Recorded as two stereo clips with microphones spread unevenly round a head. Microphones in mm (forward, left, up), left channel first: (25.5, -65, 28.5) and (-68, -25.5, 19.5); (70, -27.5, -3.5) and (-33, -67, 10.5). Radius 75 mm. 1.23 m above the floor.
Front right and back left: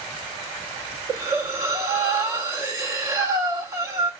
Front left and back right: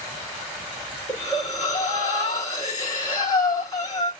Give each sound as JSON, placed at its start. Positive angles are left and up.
{"t": 1.1, "sound": "breathing", "azimuth_deg": 90, "distance_m": 0.8}